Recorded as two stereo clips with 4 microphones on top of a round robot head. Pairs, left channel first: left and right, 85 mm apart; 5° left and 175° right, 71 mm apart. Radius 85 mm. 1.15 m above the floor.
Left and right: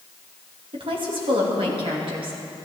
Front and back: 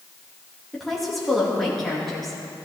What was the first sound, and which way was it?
A woman speaking, 85° right.